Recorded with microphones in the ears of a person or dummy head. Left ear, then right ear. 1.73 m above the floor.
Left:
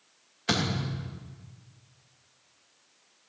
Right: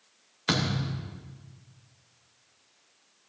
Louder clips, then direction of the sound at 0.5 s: Even; 30° right (ahead or behind).